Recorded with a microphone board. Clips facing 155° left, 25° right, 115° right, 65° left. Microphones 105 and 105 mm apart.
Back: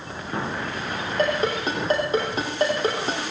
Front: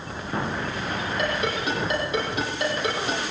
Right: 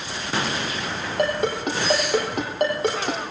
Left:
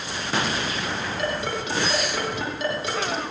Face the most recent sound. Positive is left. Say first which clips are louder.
# back 5 dB, right 8 dB
turn(degrees=-150)